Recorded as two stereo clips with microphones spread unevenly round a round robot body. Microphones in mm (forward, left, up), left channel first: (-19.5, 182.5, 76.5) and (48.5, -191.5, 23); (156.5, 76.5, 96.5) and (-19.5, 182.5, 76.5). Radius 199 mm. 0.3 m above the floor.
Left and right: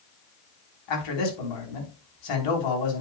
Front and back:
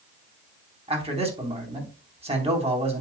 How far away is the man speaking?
About 3.5 m.